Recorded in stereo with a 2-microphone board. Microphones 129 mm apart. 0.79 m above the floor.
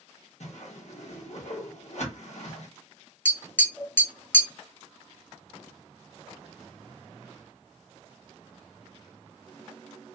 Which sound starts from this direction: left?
A whoosh, at 0.4 s.